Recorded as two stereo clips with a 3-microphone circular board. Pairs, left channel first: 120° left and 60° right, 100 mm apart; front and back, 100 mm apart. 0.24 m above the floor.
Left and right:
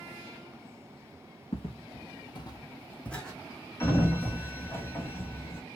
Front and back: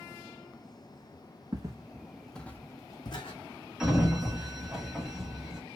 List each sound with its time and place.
1.5 s footsteps: 130° left, 0.8 m; by 3.4 s 30° left, 0.9 m
3.8 s a sliding door: 100° left, 1.0 m